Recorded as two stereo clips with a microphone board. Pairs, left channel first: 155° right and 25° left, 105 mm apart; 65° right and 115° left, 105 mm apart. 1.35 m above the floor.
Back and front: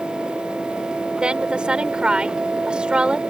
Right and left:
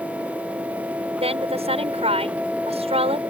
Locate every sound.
1.1 s a woman speaking: 105° left